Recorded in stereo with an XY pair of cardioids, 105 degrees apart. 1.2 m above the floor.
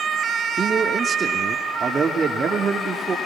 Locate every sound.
0.6 s a man speaking: 35° right, 3 m